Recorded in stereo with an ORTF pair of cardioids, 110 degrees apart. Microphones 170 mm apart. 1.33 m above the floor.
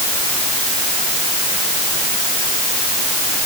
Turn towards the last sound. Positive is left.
No sound to turn to.